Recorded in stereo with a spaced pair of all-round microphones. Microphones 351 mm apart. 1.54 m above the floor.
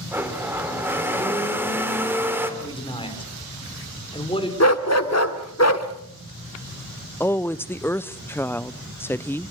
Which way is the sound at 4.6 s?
45° left (ahead or behind).